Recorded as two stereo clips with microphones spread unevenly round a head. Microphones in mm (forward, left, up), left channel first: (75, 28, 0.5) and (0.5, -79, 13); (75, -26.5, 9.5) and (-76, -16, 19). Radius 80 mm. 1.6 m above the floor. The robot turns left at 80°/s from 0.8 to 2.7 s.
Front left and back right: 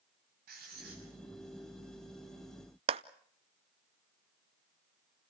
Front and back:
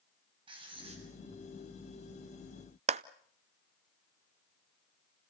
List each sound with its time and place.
0.5 s writing: 125° right, 6.5 m; by 1.0 s 145° right, 6.5 m
2.9 s a clap: 155° right, 0.6 m